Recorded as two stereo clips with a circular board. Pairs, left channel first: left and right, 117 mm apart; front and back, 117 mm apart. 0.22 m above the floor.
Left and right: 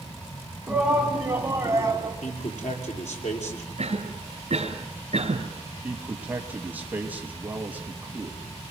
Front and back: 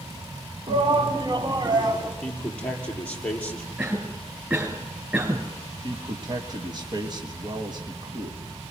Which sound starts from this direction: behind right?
A cough, at 3.8 s.